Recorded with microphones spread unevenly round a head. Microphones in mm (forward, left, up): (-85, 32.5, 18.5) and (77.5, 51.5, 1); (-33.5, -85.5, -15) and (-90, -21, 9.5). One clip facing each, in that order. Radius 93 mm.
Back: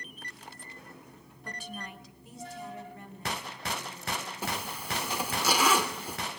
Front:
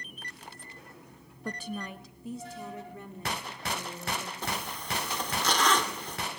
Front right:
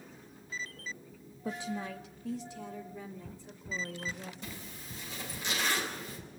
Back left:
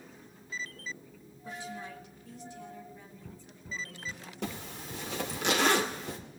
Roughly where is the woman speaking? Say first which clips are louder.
Front 6 dB, front right 4 dB; ahead right.